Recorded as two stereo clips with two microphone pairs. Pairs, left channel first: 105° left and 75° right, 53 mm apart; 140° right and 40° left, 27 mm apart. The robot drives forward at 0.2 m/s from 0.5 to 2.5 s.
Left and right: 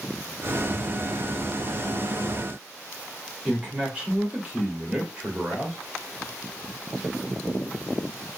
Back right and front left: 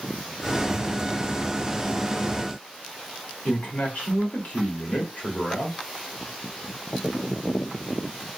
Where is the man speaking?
140° right, 1.3 m.